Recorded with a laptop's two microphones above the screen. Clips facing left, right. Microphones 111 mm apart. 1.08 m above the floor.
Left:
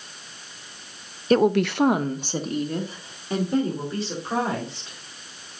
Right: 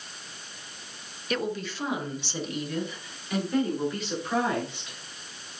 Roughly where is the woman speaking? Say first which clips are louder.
Left 12 dB; left.